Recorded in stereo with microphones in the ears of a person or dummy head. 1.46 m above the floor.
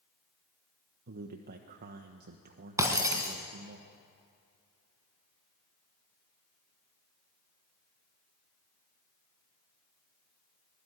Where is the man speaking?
50° right (ahead or behind), 1.2 m.